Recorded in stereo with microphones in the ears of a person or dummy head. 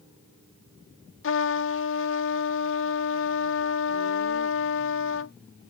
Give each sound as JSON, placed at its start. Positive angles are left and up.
{"t": 1.2, "sound": "a trumpet", "side_deg": 60}